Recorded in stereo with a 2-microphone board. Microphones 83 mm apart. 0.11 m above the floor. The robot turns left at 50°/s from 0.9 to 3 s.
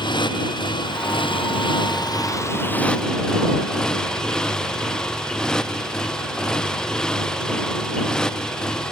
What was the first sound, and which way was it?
A motorcycle, 115° left.